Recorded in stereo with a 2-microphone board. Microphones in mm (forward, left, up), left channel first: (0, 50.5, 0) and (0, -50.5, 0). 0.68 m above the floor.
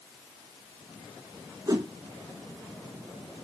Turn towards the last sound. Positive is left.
turn(degrees=-35)  # may be behind; listen again after turning